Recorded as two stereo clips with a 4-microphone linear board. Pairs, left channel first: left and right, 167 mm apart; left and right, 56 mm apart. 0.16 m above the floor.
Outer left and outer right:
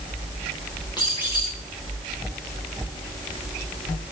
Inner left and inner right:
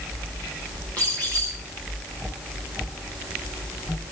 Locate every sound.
1.0 s a squeak: 25° left (ahead or behind), 6.5 m